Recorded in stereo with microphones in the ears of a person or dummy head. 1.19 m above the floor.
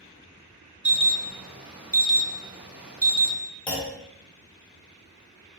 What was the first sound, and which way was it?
An alarm, 5° right (ahead or behind).